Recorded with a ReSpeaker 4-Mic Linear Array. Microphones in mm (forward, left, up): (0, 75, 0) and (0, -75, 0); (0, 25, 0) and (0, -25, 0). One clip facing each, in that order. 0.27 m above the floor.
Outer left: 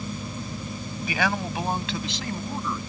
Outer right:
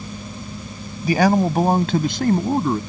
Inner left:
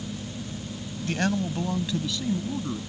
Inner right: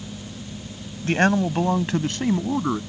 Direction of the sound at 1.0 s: 40° right (ahead or behind).